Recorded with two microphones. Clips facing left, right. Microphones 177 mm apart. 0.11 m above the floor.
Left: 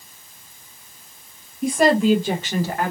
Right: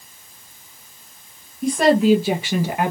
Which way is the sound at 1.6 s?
Centre (ahead or behind).